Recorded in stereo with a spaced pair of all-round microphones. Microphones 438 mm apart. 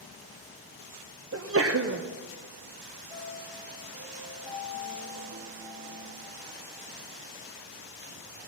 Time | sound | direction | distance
1.3 | a sneeze | 30° right (ahead or behind) | 0.6 m
3.1 | a piano | 65° right (ahead or behind) | 6 m